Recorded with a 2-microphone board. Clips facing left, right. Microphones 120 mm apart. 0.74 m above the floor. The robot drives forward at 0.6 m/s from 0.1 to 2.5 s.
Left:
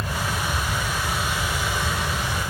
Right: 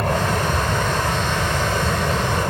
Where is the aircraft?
65° right (ahead or behind).